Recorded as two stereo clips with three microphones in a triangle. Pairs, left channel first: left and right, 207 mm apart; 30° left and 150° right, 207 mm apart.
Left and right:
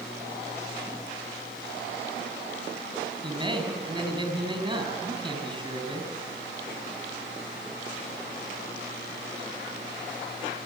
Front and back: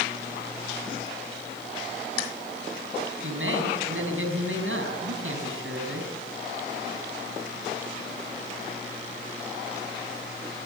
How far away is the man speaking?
About 5.5 m.